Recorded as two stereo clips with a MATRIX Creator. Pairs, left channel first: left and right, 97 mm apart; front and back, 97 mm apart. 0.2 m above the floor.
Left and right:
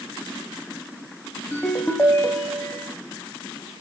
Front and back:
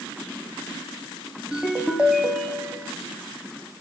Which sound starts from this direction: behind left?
A ringtone, at 1.5 s.